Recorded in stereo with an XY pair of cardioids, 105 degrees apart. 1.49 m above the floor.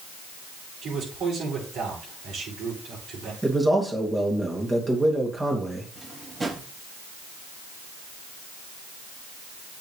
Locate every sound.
0.8 s a man speaking: 60° right, 7.5 m
3.4 s a man speaking: 20° right, 3 m
6.0 s a drawer: 35° right, 4 m